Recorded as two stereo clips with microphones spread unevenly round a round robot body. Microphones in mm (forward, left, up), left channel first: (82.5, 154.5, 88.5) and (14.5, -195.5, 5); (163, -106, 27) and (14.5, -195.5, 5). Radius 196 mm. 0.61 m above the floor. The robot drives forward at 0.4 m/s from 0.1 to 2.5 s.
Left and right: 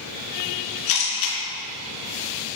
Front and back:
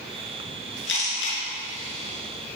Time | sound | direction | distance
0.9 | a camera shutter | 50° left | 4 m